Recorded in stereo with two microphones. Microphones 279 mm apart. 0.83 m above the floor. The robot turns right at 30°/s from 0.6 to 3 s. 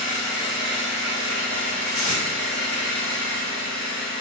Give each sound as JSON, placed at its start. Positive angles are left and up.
{"t": 0.0, "sound": "an engine running", "azimuth_deg": -145, "distance_m": 3.0}
{"t": 1.9, "sound": "tape being pulled", "side_deg": -80, "distance_m": 3.0}